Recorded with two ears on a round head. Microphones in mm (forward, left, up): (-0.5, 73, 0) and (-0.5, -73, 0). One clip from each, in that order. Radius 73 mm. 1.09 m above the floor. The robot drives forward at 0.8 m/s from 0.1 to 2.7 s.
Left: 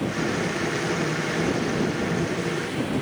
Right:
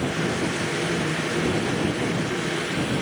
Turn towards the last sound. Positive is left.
No sound to turn to.